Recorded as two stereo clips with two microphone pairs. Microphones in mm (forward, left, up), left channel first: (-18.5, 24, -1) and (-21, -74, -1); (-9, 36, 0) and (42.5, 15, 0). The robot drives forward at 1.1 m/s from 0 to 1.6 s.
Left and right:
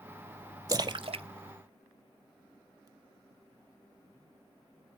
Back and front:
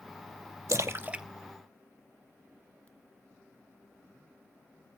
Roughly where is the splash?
Ahead right.